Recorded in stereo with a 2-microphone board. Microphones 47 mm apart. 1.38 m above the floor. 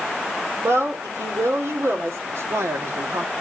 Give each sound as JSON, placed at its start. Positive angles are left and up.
{"t": 0.6, "sound": "a woman speaking", "side_deg": -75, "distance_m": 4.0}
{"t": 2.3, "sound": "a man speaking", "side_deg": -75, "distance_m": 1.9}